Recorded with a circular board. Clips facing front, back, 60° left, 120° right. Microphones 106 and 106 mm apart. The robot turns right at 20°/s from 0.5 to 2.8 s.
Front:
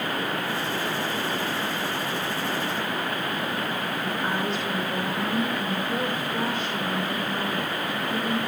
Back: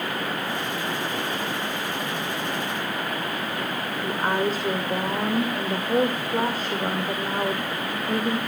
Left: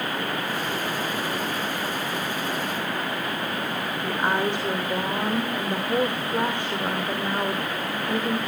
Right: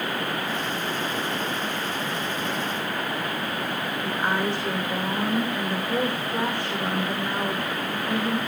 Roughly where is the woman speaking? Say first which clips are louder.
Back 6 dB, left 2 dB; behind left.